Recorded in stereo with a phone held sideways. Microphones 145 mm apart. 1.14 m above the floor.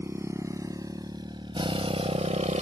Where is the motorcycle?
20° right (ahead or behind); by 2.6 s 55° right (ahead or behind).